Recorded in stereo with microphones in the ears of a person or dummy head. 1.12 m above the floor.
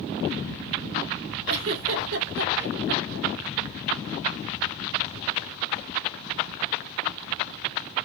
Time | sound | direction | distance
1.5 | a giggle | 80° right | 2.5 m